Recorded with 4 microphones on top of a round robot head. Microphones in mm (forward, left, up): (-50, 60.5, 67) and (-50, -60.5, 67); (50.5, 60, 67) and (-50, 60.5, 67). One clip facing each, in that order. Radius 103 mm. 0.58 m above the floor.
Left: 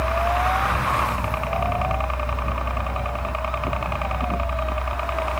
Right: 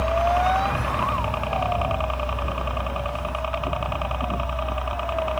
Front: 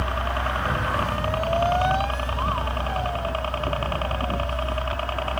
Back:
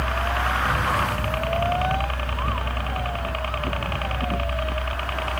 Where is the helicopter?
30° right; by 5.4 s 15° right.